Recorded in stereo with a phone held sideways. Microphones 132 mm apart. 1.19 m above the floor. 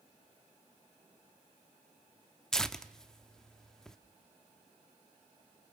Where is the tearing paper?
5° left (ahead or behind), 0.9 m.